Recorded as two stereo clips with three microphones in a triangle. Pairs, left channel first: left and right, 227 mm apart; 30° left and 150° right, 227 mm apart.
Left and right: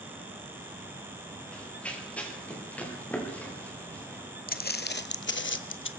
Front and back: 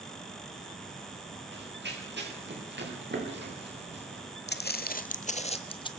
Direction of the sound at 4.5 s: 55° left.